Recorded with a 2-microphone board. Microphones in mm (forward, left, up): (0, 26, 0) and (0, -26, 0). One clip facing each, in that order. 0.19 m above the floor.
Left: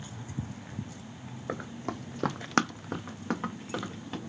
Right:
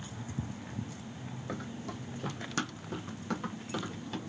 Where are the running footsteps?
30° left (ahead or behind), 0.8 m; by 4.2 s 20° left (ahead or behind), 1.8 m.